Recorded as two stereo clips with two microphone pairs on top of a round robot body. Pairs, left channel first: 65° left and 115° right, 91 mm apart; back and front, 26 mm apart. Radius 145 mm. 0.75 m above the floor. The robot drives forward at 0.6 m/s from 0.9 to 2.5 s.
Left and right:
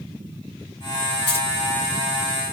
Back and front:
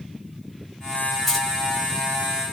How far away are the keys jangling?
About 1.4 m.